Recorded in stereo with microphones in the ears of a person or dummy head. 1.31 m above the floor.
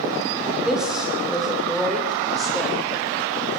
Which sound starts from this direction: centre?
A woman speaking, at 0.7 s.